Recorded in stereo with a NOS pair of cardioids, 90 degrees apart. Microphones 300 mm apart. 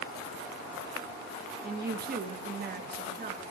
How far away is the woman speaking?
About 2.5 m.